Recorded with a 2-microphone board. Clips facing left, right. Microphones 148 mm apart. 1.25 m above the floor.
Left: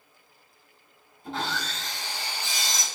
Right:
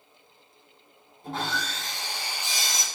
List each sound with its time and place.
1.2 s sawing: 50° right (ahead or behind), 2.5 m